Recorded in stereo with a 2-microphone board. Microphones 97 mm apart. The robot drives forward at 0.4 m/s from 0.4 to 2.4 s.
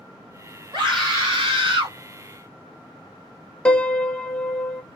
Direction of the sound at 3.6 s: 10° left (ahead or behind).